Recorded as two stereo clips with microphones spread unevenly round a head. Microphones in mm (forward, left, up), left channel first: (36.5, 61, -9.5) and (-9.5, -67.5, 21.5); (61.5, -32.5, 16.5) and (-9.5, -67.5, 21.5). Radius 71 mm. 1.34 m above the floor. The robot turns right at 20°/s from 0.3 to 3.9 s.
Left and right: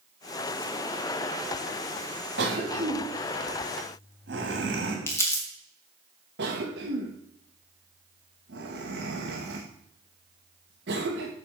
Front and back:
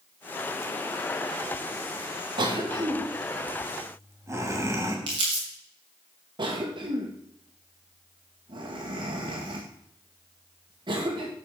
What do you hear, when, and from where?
2.4 s a cough: 130° right, 3 m; by 5.0 s 100° right, 3 m
5.1 s crumpling: 150° left, 2.5 m
6.4 s a cough: 120° right, 1.7 m